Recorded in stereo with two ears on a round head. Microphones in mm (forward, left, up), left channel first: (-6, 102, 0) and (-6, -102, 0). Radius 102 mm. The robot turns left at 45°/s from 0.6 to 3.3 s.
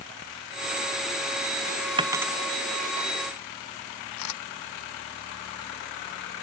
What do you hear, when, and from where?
2.0 s a dropped coin: 20° right (ahead or behind); by 2.3 s 5° right (ahead or behind)
4.2 s a camera shutter: 90° left